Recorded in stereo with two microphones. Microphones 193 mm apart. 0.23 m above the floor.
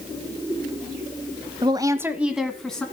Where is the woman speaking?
25° right (ahead or behind), 1.0 m; by 2.9 s 5° left (ahead or behind), 1.9 m.